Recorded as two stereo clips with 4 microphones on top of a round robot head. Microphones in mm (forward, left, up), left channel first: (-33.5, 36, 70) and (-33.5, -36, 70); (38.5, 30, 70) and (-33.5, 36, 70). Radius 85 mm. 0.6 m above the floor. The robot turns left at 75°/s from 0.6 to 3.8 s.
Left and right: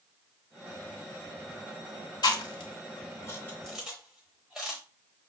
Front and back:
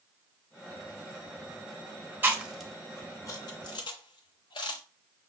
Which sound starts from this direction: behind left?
Chewing, at 2.2 s.